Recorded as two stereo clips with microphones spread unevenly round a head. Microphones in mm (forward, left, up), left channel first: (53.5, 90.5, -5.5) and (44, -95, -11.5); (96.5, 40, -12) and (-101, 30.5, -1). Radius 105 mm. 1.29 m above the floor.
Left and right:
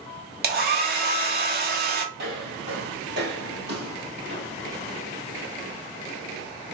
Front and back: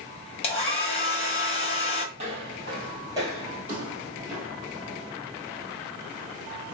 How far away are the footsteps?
About 2.5 m.